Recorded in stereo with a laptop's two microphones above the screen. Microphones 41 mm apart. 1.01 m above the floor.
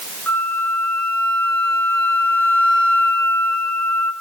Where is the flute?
70° left (ahead or behind), 5 m.